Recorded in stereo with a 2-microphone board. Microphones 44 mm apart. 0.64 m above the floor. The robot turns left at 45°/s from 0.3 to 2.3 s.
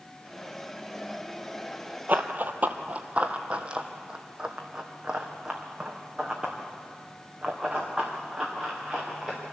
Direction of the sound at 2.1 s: 40° right (ahead or behind).